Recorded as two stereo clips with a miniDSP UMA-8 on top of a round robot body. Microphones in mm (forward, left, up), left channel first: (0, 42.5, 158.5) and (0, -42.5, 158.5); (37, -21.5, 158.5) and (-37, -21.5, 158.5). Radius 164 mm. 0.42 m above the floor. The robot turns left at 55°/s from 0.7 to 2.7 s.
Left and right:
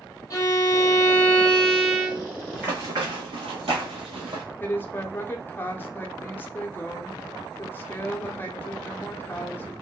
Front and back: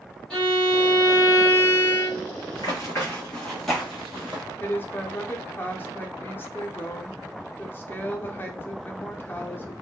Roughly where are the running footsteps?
Ahead.